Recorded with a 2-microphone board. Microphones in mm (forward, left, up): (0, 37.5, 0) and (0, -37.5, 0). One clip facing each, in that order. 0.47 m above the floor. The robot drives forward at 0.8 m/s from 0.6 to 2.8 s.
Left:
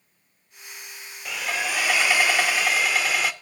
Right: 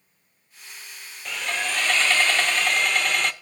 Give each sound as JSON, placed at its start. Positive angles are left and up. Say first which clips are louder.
{"t": 1.2, "sound": "sawing", "louder": "even", "side_deg": 5, "distance_m": 0.9}